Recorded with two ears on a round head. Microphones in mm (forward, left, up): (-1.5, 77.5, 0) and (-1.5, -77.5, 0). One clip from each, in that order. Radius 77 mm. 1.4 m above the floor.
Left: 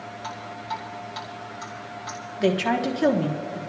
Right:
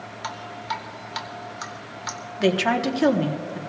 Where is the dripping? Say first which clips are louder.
Right 3 dB; 45° right (ahead or behind), 1.5 m.